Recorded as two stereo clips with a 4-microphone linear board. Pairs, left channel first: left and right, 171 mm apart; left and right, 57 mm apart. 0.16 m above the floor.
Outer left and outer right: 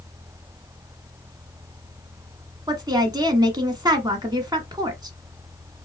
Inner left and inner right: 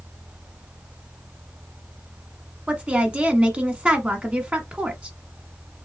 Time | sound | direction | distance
2.7 | a woman speaking | 25° right (ahead or behind) | 1.2 m